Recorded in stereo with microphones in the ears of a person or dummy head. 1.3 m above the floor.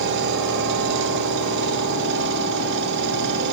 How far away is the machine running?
About 1.6 m.